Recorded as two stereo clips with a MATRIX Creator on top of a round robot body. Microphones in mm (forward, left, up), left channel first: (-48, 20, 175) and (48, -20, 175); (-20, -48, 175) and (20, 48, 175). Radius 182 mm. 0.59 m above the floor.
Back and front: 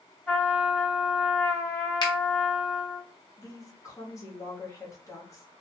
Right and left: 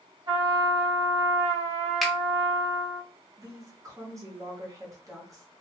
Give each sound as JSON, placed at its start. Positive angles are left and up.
{"t": 0.3, "sound": "a trumpet", "azimuth_deg": 80, "distance_m": 1.9}
{"t": 2.0, "sound": "a finger snap", "azimuth_deg": 160, "distance_m": 1.0}
{"t": 3.4, "sound": "a woman speaking", "azimuth_deg": 115, "distance_m": 1.2}